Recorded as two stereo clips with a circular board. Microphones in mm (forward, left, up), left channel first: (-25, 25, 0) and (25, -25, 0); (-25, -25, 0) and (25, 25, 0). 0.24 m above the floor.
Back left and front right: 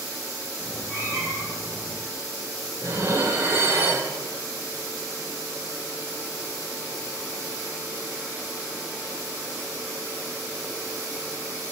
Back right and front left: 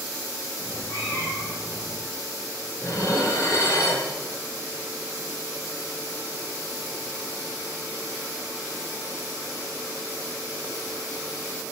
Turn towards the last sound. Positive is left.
turn(degrees=-95)